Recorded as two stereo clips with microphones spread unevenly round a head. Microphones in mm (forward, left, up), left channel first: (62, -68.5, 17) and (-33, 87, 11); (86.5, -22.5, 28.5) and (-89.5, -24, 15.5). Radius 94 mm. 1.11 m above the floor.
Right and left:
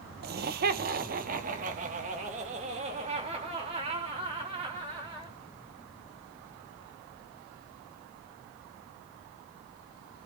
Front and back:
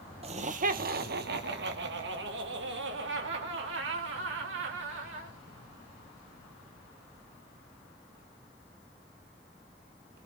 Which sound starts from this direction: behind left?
Laughter, at 0.2 s.